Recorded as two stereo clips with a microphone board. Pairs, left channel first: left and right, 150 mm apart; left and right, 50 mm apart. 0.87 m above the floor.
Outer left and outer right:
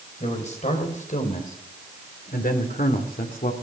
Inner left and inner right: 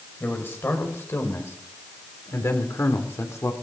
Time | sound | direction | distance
0.2 | a man speaking | 50° left (ahead or behind) | 4.5 m